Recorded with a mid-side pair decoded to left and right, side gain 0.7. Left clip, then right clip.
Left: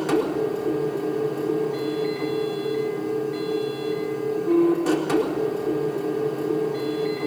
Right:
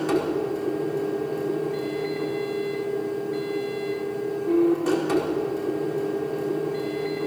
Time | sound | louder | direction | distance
0.0 | a machine running | left 2 dB | 5° left | 4.5 m